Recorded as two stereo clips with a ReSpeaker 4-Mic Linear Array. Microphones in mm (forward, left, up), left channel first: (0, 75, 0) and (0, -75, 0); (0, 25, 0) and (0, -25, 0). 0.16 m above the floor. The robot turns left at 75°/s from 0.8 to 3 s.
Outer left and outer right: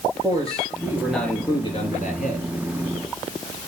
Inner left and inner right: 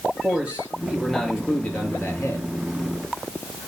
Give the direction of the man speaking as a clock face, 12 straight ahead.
5 o'clock.